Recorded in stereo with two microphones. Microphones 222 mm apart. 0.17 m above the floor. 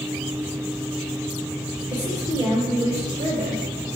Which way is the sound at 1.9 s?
20° left (ahead or behind).